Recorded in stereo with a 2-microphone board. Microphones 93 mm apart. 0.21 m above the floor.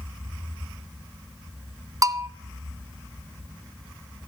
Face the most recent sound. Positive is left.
turn(degrees=-40)  # may be behind; listen again after turning